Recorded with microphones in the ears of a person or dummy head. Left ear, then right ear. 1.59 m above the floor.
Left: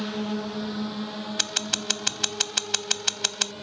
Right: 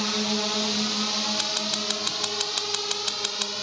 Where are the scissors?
15° left (ahead or behind).